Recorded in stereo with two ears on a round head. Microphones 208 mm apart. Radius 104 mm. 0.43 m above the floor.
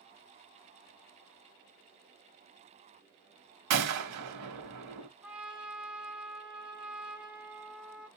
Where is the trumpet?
5° right (ahead or behind), 1.3 m.